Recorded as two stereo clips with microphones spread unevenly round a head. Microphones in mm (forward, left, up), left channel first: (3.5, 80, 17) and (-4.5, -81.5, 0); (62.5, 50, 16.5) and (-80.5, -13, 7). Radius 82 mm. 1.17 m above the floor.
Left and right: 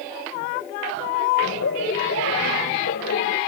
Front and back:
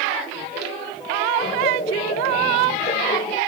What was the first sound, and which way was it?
Laughter, 75° left.